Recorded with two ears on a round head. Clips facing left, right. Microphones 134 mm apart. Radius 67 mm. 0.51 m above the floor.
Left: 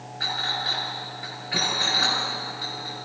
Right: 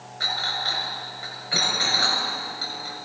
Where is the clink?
55° right (ahead or behind), 6.5 m.